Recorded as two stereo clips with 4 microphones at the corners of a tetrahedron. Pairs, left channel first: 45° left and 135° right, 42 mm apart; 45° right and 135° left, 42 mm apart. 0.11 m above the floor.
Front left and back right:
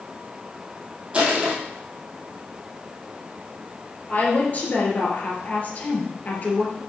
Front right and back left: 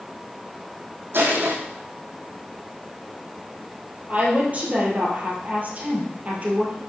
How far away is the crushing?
About 2 m.